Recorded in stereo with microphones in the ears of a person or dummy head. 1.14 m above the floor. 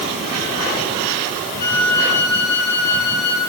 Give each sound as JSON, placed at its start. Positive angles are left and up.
{"t": 1.6, "sound": "a flute", "side_deg": 55, "distance_m": 8.5}